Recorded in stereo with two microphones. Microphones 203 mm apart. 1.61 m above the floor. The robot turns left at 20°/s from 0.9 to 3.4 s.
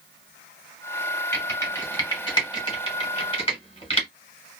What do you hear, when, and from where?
1.3 s typing on a keyboard: 10° left (ahead or behind), 1.5 m; by 4.1 s 30° left (ahead or behind), 1.5 m